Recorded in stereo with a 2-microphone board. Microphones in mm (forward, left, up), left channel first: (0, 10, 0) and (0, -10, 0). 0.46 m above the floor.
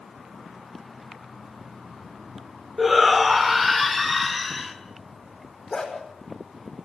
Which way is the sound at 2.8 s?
Centre (ahead or behind).